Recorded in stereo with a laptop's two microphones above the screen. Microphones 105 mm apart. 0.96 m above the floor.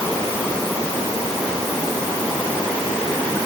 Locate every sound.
Only background noise.